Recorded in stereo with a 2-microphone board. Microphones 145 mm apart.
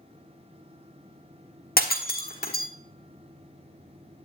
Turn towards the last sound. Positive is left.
turn(degrees=85)